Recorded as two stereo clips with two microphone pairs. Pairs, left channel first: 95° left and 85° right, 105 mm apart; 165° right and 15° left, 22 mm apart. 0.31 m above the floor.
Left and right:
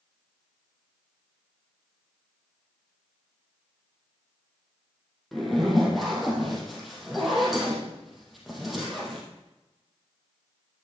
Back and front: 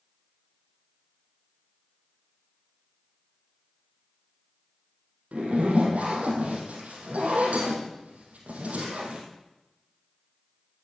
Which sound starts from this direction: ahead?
A zipper, at 5.3 s.